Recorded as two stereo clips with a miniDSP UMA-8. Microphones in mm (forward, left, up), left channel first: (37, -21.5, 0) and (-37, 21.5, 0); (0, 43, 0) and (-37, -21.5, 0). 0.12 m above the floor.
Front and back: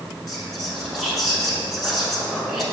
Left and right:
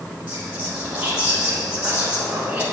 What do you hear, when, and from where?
0.3 s whispering: 120° right, 1.1 m